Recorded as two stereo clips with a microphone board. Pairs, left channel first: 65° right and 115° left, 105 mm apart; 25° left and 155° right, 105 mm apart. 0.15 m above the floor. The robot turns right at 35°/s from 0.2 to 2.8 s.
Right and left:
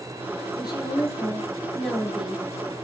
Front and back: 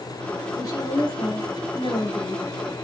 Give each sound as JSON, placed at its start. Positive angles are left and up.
{"t": 0.6, "sound": "a woman speaking", "azimuth_deg": -30, "distance_m": 3.0}